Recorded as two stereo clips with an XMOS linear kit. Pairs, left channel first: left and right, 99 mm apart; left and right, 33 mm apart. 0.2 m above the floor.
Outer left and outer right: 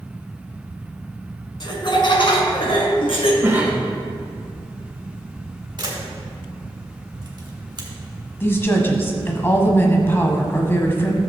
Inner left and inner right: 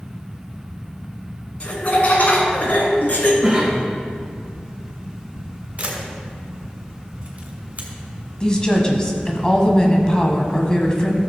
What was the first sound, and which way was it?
Laughter, 50° left (ahead or behind).